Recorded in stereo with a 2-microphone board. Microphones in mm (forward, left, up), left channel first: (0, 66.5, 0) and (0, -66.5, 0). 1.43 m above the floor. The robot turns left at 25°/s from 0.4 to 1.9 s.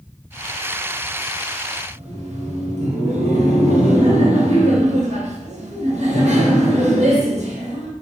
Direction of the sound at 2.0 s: 55° right (ahead or behind).